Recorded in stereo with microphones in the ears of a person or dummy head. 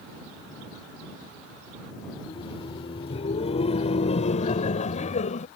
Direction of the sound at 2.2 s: 20° left (ahead or behind).